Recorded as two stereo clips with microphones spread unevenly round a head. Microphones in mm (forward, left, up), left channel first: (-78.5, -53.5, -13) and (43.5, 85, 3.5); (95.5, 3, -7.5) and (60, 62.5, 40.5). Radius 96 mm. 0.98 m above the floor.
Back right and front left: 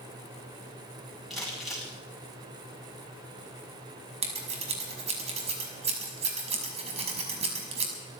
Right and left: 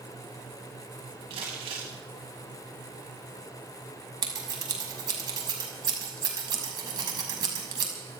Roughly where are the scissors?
Left.